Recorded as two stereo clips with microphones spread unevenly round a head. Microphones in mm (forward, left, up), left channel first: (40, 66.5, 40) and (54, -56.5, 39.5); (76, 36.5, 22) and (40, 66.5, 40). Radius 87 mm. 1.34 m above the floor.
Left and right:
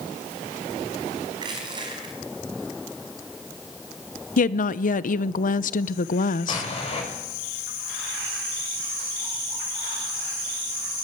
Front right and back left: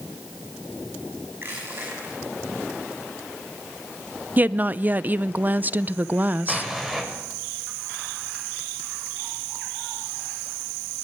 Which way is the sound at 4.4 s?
80° left.